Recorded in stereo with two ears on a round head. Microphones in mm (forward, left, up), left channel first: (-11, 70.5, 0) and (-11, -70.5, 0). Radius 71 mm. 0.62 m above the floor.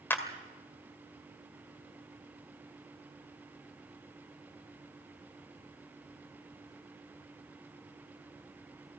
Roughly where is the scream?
No scream in this recording.